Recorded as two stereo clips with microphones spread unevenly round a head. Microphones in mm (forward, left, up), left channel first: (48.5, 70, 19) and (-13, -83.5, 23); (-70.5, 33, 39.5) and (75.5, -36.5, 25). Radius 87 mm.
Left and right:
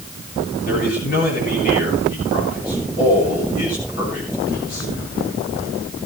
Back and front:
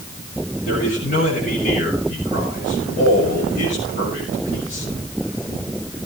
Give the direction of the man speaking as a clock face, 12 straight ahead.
8 o'clock.